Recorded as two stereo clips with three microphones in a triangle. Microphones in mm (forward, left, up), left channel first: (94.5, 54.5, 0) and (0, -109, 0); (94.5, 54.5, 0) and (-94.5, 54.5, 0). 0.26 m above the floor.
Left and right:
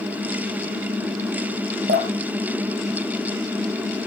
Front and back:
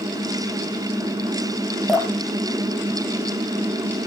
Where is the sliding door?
No sliding door in this recording.